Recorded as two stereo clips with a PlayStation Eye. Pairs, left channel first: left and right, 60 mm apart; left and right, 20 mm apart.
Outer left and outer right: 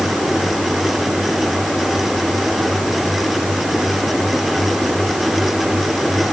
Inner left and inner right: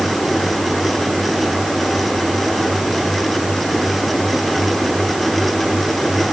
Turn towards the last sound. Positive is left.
No sound to turn to.